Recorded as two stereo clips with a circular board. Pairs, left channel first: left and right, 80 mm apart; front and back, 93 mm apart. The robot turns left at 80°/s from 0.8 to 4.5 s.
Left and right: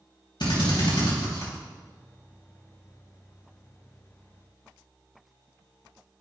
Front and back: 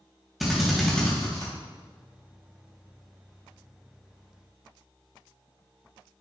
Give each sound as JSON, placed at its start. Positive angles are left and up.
{"t": 0.4, "sound": "a drill", "azimuth_deg": 90, "distance_m": 3.5}